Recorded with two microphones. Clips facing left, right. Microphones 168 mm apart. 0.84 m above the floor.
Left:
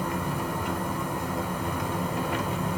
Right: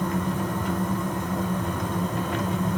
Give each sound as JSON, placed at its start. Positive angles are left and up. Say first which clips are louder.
{"t": 0.0, "sound": "an engine running", "louder": "right 3 dB", "side_deg": 10, "distance_m": 0.9}